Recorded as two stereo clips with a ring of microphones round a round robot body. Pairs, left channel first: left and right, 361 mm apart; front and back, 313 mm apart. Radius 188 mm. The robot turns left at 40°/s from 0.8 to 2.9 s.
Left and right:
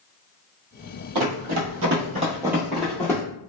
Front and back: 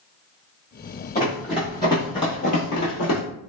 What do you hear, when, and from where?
1.1 s running footsteps: 65° right, 1.1 m; by 3.2 s 10° left, 0.9 m